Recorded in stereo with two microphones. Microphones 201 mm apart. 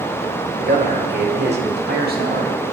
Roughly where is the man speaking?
Right.